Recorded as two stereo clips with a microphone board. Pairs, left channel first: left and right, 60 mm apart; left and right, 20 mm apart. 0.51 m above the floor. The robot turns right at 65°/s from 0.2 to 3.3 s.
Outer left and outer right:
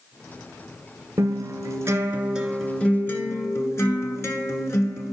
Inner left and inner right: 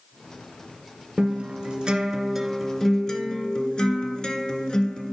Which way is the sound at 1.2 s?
90° right.